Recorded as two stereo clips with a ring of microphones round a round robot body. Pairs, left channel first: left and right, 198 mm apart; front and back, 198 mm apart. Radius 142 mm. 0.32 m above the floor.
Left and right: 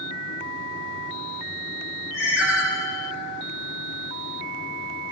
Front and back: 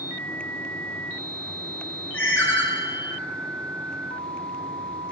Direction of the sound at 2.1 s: 80° left.